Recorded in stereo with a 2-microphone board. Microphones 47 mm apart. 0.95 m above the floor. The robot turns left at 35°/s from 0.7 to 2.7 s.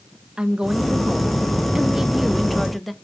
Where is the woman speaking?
20° right (ahead or behind), 0.6 m; by 2.9 s centre (ahead or behind), 0.6 m.